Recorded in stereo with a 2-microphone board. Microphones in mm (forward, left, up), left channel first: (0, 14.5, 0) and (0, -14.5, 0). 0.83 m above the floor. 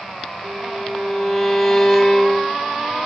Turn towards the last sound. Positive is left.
turn(degrees=-5)  # may be behind; listen again after turning